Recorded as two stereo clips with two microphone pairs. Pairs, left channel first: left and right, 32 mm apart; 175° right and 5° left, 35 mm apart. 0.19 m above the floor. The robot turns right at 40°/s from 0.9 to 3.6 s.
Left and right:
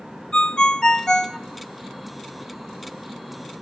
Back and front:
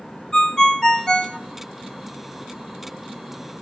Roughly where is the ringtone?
Behind left.